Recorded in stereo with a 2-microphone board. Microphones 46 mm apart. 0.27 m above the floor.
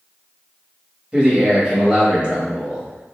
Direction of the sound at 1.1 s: 20° right (ahead or behind).